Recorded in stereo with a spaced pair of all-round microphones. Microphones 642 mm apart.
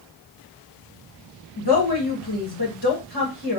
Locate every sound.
1.6 s a woman speaking: 40° left (ahead or behind), 1.1 m